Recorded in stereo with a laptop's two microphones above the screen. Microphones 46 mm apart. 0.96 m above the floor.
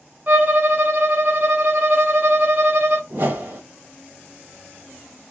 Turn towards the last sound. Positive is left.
turn(degrees=-50)  # may be behind; listen again after turning